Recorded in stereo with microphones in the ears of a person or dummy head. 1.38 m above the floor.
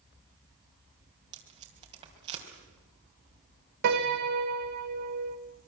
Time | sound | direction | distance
1.3 | tape being pulled | 30° right (ahead or behind) | 4 m
3.8 | a piano | 60° right (ahead or behind) | 1.4 m